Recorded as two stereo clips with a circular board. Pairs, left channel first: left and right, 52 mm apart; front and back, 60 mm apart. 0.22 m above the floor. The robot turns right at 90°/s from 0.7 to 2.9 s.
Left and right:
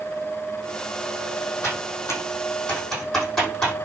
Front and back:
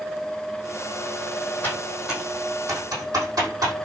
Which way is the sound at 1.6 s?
55° left.